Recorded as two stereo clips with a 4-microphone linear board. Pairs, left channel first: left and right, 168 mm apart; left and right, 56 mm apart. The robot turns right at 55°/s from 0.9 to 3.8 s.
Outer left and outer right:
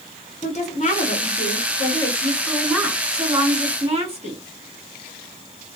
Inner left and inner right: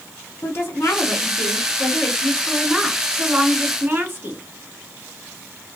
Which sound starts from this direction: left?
A woman speaking, at 0.4 s.